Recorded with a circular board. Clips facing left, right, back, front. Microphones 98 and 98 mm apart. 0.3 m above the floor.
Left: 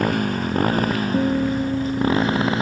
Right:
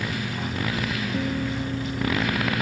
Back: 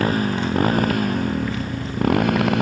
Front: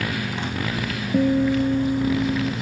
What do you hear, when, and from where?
0.0 s a motorcycle: 130° left; by 2.6 s 155° left
1.1 s a guitar: 35° left